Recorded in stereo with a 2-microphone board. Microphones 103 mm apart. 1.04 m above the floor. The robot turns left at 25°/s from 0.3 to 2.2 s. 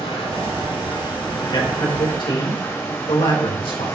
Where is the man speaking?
80° left, 3.5 m; by 3.9 s 75° left (ahead or behind), 3.5 m.